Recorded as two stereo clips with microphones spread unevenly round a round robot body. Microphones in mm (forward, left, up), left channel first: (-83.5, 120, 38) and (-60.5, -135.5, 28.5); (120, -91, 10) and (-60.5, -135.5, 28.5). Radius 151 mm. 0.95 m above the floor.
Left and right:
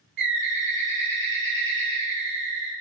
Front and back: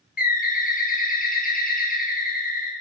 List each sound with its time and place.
0.2 s a bird: 30° right, 0.9 m